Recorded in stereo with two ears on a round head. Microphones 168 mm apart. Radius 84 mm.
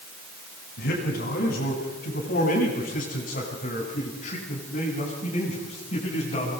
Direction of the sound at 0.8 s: 55° left (ahead or behind).